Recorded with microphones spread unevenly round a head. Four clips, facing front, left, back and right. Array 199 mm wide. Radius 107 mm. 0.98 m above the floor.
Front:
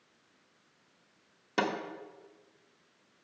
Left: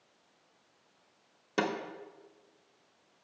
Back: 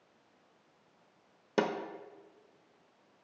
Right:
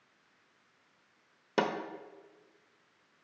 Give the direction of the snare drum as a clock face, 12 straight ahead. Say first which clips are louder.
Right 1 dB, even; 4 o'clock.